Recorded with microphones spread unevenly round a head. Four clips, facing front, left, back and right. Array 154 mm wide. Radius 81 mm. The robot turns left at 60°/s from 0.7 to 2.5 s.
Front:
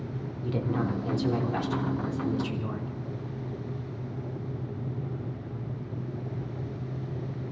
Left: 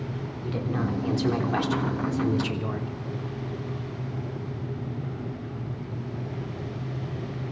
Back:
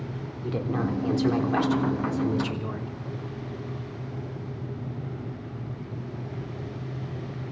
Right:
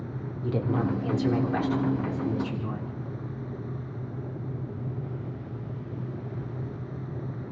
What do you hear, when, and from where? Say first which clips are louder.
0.4 s a woman speaking: right 2 dB, back 1 dB; 145° right, 3.5 m; by 2.9 s 110° left, 3.5 m